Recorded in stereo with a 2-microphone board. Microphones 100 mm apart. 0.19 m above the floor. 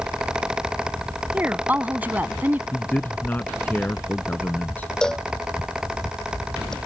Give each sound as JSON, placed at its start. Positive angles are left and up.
{"t": 1.3, "sound": "a woman speaking", "side_deg": -20}
{"t": 2.7, "sound": "a man speaking", "side_deg": 20}
{"t": 5.0, "sound": "a cowbell", "side_deg": 5}